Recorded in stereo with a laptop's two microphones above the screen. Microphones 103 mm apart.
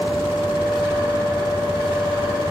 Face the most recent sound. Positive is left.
turn(degrees=55)  # may be behind; listen again after turning